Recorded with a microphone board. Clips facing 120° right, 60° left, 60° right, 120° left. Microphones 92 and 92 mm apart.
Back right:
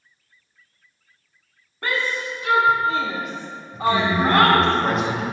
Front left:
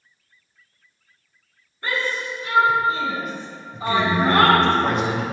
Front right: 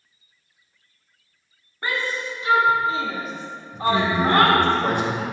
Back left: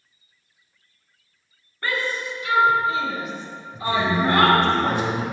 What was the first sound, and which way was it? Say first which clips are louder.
A shout: back right 1 dB, even; 130° right.